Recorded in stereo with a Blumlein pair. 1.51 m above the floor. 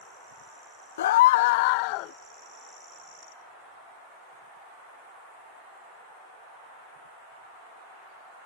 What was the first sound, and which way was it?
A scream, 60° left.